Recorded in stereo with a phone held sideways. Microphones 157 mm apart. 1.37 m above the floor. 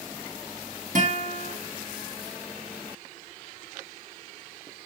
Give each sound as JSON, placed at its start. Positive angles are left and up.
{"t": 0.9, "sound": "a guitar", "side_deg": -60, "distance_m": 1.2}